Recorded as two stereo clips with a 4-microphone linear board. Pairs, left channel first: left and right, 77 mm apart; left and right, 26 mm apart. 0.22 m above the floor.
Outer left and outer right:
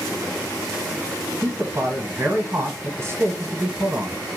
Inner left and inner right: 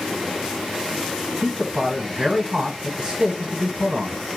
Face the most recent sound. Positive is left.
turn(degrees=-35)  # may be behind; listen again after turning